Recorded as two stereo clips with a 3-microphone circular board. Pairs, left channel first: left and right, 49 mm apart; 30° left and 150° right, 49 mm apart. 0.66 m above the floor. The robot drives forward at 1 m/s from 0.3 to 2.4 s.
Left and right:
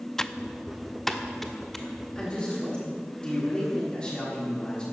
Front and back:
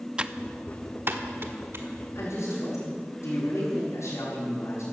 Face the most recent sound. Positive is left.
turn(degrees=20)